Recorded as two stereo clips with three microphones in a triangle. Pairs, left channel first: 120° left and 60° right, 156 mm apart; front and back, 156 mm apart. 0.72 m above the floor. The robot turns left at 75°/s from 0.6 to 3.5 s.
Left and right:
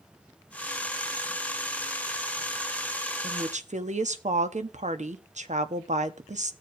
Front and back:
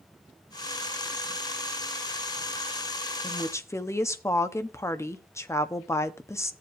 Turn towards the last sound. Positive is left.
turn(degrees=-65)